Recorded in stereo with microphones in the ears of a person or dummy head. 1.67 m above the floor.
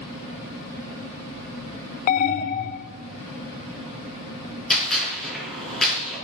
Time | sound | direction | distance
2.1 | an alarm | 45° left (ahead or behind) | 0.6 m
4.7 | a gunshot | centre (ahead or behind) | 5 m